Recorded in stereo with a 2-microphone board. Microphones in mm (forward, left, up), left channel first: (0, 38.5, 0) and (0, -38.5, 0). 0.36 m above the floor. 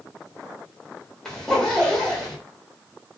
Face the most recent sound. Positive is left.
turn(degrees=10)  # may be behind; listen again after turning